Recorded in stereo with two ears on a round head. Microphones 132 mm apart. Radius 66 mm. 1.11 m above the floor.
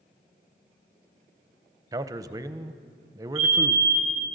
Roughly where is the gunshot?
No gunshot in this recording.